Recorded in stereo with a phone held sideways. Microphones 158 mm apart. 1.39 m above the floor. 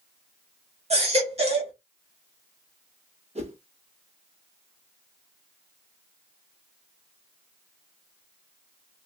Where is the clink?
I don't hear a clink.